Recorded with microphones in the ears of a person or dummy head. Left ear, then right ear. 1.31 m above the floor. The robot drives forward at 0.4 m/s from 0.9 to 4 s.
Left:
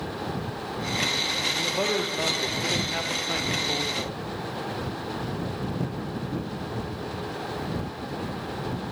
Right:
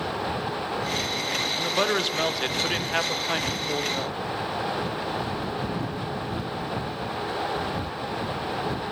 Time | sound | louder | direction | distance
1.5 | a man speaking | right 2 dB | 50° right (ahead or behind) | 1.4 m